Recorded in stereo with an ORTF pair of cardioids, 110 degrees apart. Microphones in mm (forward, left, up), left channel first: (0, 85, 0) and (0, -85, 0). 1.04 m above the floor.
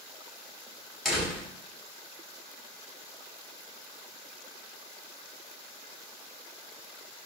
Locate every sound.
1.1 s a door slam: straight ahead, 5.5 m